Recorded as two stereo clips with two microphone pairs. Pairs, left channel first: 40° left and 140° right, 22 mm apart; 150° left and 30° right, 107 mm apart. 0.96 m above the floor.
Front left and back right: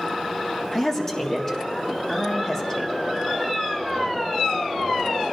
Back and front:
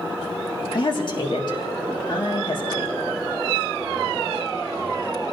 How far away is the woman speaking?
About 1.8 m.